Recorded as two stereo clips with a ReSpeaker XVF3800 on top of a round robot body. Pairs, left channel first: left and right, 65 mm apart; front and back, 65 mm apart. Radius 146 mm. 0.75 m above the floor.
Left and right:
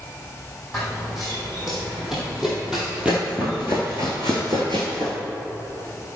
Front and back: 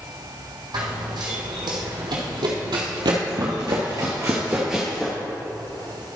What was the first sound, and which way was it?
Running footsteps, straight behind.